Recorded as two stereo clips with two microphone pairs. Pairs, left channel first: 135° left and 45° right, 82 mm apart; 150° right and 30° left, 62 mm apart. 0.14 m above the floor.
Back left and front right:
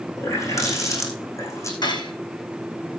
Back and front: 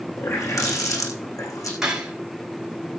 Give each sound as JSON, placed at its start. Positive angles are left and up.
{"t": 0.2, "sound": "a running tap", "azimuth_deg": -175, "distance_m": 4.5}
{"t": 1.8, "sound": "cutlery clinking", "azimuth_deg": 115, "distance_m": 4.5}